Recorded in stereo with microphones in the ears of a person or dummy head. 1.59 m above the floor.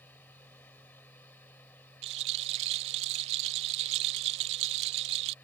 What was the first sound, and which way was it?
A machine running, 10° left (ahead or behind).